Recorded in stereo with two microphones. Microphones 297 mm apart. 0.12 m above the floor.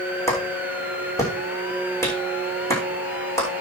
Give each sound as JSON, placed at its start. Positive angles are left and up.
{"t": 0.3, "sound": "a clap", "side_deg": 10, "distance_m": 6.0}